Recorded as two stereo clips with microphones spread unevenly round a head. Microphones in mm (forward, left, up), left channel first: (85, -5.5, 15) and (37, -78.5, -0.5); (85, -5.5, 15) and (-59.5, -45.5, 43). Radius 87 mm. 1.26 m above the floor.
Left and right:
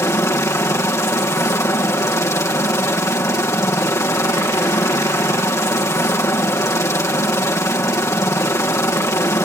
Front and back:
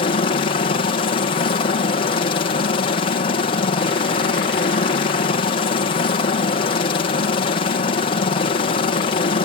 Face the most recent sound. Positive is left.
turn(degrees=5)